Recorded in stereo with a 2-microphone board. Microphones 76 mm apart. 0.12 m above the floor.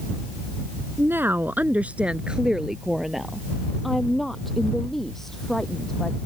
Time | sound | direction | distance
1.0 | a woman speaking | 30° right (ahead or behind) | ?